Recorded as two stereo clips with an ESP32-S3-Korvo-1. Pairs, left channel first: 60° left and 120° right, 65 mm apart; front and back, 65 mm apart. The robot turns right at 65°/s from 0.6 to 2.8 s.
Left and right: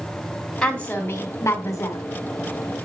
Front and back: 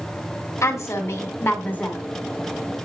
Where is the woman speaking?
15° right, 2 m; by 2.0 s 80° left, 2 m.